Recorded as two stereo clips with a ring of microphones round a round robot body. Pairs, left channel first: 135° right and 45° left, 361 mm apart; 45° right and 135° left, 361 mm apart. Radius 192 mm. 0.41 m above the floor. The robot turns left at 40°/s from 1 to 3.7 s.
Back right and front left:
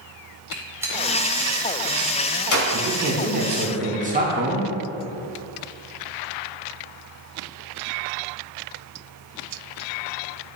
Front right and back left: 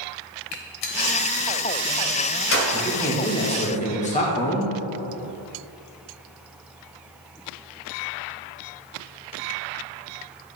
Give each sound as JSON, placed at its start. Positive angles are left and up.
{"t": 0.5, "sound": "a gunshot", "azimuth_deg": -40, "distance_m": 1.2}
{"t": 2.7, "sound": "a man speaking", "azimuth_deg": 40, "distance_m": 1.6}